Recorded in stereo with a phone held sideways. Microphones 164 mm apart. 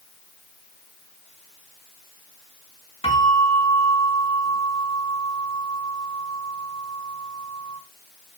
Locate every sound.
3.0 s a bell: 40° left (ahead or behind), 4.5 m